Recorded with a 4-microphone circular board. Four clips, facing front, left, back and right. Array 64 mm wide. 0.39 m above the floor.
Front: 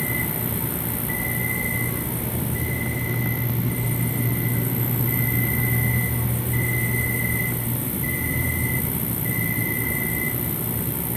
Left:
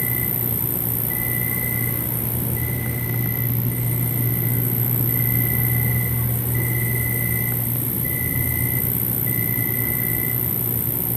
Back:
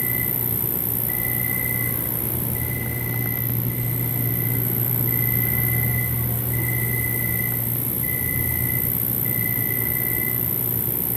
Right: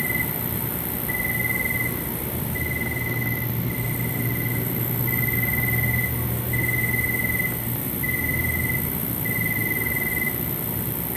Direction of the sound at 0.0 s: 85° right.